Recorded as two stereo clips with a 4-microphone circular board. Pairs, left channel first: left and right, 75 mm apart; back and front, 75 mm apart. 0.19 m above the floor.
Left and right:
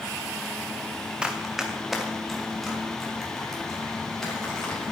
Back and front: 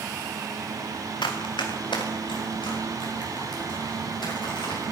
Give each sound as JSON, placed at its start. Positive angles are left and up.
{"t": 1.2, "sound": "running footsteps", "azimuth_deg": -170, "distance_m": 1.5}